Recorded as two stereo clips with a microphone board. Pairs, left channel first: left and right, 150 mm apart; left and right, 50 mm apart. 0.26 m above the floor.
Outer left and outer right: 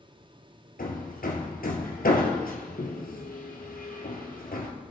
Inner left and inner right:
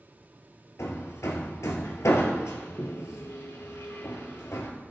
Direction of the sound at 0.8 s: 80° left.